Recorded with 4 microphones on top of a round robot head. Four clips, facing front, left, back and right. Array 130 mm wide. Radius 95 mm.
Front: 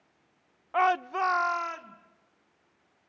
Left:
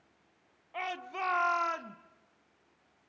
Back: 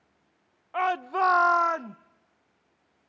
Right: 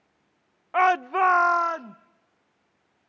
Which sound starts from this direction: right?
A shout, at 0.7 s.